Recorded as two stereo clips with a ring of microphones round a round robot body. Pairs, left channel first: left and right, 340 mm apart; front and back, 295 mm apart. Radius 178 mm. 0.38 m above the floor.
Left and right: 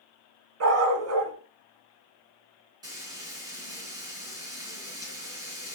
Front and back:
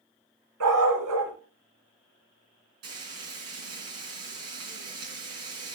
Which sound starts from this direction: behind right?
A dog barking, at 0.6 s.